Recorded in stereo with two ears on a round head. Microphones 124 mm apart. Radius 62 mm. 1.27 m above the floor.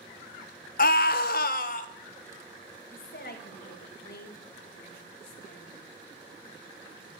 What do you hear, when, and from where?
0.8 s a scream: 70° left (ahead or behind), 1.1 m; by 1.9 s 60° left (ahead or behind), 1.2 m
2.9 s a woman speaking: 75° left (ahead or behind), 2 m